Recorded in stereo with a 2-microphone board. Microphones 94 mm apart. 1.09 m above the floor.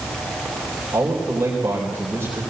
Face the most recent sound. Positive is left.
turn(degrees=-25)  # may be behind; listen again after turning